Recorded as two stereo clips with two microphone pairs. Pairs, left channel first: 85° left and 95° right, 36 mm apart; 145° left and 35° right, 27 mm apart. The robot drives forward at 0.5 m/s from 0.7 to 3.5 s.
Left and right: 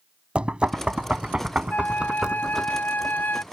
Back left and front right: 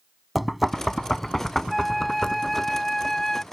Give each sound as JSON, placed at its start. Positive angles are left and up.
{"t": 0.3, "sound": "knocking", "azimuth_deg": -120}
{"t": 1.7, "sound": "a flute", "azimuth_deg": 50}